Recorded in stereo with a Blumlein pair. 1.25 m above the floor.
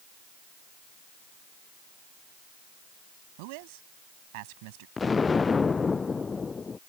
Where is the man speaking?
45° right.